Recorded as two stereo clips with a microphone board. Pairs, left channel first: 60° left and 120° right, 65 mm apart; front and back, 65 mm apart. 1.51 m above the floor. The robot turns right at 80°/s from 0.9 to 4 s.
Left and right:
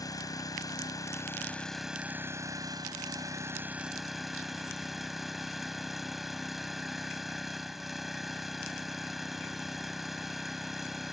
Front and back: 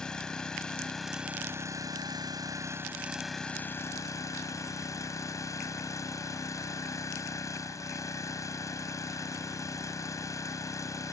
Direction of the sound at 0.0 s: 80° left.